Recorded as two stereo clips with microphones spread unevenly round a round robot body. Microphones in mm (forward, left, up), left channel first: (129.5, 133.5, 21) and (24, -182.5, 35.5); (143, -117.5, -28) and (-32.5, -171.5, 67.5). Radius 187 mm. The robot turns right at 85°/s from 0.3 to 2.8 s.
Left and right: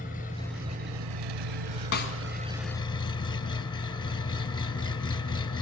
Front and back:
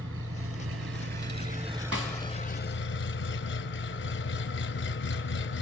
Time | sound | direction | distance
0.0 | an engine running | 140° left | 1.4 m
1.9 | a snare drum | 135° left | 1.5 m